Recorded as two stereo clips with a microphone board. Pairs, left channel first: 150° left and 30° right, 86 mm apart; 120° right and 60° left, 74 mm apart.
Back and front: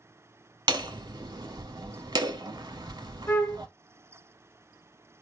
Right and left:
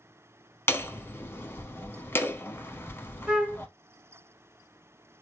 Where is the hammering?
65° right, 0.8 m.